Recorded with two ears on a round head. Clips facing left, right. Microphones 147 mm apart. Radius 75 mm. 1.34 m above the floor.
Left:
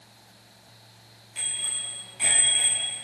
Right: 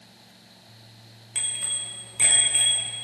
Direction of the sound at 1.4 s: 85° right.